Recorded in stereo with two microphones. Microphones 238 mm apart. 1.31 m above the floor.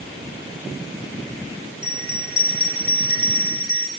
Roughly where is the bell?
Left.